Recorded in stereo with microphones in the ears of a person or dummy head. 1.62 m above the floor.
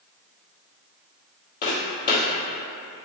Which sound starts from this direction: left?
Footsteps, at 1.6 s.